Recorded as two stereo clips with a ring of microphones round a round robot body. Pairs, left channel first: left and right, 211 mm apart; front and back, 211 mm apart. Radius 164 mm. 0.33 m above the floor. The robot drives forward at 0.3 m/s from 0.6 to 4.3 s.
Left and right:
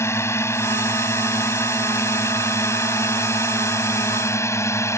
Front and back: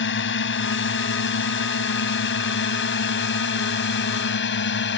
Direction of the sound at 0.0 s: 15° left.